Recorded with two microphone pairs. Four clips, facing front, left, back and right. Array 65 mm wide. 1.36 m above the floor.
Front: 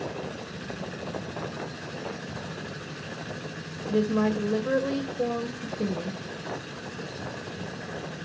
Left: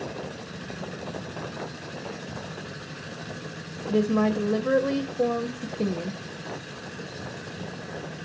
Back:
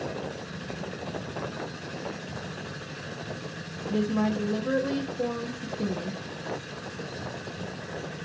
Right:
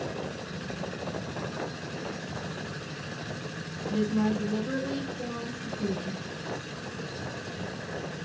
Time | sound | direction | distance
3.9 | a woman speaking | 90° left | 0.8 m